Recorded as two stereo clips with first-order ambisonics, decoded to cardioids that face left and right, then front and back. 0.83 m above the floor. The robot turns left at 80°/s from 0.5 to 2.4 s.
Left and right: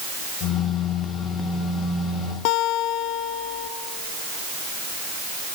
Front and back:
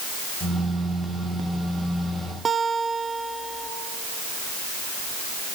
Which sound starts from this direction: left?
A guitar, at 2.5 s.